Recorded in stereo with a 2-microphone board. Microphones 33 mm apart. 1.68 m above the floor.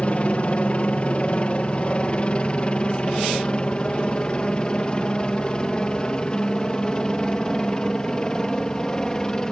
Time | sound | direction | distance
0.0 | a helicopter | 40° left (ahead or behind) | ?